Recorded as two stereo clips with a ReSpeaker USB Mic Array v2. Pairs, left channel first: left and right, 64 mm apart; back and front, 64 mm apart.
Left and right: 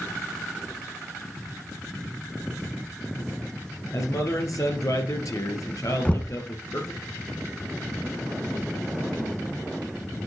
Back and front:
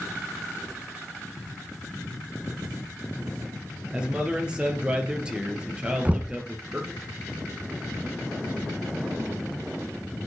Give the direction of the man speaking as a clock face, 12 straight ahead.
10 o'clock.